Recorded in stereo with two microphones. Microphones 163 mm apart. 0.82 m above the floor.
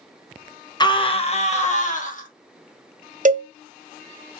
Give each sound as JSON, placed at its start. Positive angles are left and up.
{"t": 0.8, "sound": "a scream", "side_deg": 25, "distance_m": 0.8}
{"t": 3.2, "sound": "a cowbell", "side_deg": -55, "distance_m": 0.6}